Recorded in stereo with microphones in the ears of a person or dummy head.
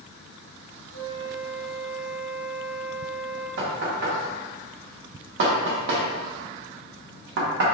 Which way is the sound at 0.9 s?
70° left (ahead or behind).